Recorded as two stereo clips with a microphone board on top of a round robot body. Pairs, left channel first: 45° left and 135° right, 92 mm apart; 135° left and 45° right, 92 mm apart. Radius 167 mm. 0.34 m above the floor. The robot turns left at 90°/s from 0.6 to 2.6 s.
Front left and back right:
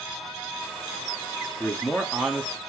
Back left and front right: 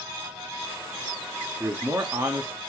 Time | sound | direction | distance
1.6 | a man speaking | 5° left | 0.9 m